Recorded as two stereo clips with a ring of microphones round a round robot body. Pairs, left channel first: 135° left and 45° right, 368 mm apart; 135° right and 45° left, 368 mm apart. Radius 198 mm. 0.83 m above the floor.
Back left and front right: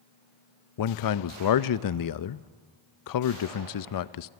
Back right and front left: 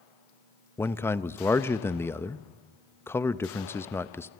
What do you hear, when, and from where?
0.8 s a man speaking: 145° left, 0.8 m